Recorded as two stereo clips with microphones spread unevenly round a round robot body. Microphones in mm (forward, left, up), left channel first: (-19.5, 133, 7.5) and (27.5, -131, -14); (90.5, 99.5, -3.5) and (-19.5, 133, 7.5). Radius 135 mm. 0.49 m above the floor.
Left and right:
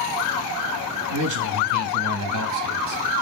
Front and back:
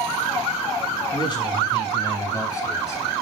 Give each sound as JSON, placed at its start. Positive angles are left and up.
{"t": 1.1, "sound": "a man speaking", "azimuth_deg": -75, "distance_m": 3.0}